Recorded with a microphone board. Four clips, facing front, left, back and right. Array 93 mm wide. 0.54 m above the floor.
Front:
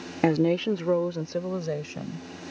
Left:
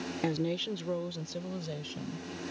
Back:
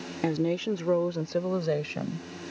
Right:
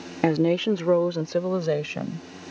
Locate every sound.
0.2 s a woman speaking: 55° right; by 2.3 s 110° right